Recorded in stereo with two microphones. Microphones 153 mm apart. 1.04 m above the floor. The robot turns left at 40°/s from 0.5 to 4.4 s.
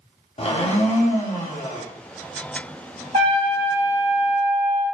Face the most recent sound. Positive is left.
turn(degrees=-130)